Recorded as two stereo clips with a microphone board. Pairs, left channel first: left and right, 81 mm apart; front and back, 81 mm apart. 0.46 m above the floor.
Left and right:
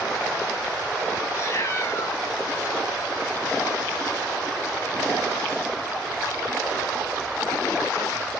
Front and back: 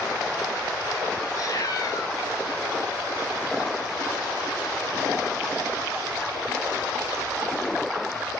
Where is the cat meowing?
35° left, 1.2 m.